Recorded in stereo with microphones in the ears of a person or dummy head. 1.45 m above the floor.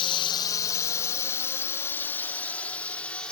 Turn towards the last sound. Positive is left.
turn(degrees=5)  # may be behind; listen again after turning